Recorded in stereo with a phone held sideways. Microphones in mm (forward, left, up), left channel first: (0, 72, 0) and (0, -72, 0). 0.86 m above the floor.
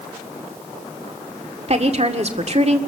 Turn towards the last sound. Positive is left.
turn(degrees=-50)  # may be behind; listen again after turning